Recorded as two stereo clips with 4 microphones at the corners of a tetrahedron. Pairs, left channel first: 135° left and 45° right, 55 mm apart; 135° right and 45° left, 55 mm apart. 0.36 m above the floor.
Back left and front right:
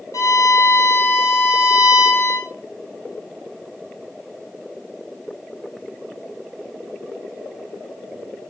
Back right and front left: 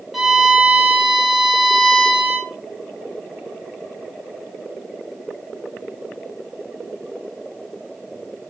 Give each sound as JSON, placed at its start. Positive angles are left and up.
{"t": 0.1, "sound": "a violin", "azimuth_deg": 130, "distance_m": 2.0}